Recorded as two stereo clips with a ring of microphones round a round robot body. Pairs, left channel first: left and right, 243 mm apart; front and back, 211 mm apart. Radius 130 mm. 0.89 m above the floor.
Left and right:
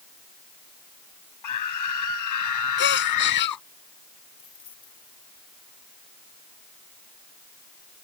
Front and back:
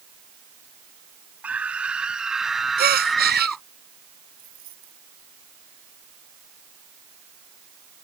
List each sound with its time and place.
1.4 s a scream: 95° left; by 3.6 s 90° left
2.8 s a gasp: 135° left
4.4 s keys jangling: 160° left